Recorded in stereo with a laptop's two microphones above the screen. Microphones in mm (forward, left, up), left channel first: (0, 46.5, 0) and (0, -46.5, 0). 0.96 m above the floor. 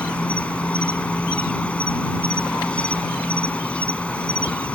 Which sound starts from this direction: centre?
An insect, at 0.0 s.